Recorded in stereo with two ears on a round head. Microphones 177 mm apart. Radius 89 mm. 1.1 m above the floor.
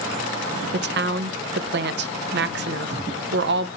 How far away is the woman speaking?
About 0.5 m.